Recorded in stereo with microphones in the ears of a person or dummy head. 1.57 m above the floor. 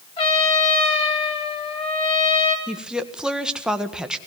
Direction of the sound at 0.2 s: 30° left (ahead or behind).